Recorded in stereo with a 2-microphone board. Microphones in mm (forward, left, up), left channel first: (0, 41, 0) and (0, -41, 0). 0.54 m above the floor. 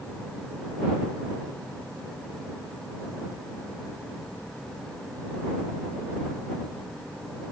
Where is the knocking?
No knocking in this recording.